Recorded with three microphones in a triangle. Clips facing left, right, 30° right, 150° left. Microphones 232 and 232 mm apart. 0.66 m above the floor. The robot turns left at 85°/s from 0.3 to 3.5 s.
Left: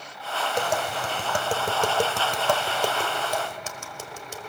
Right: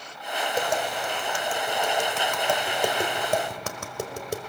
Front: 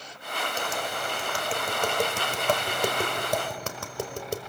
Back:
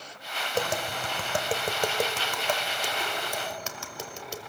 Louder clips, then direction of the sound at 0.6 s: Even, back 6 dB; 175° right.